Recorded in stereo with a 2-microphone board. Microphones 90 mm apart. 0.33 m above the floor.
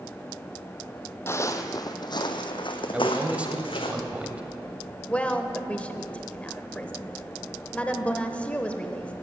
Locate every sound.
1.3 s footsteps: 30° left (ahead or behind), 0.8 m; by 3.9 s 75° left (ahead or behind), 1.7 m
2.9 s a man speaking: 15° right (ahead or behind), 1.3 m
5.1 s a woman speaking: 15° left (ahead or behind), 0.9 m